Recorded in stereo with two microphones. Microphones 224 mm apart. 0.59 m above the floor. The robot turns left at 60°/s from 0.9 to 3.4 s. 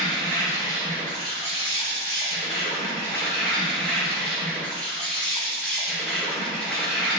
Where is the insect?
155° left, 2.0 m; by 7.2 s 5° left, 2.0 m.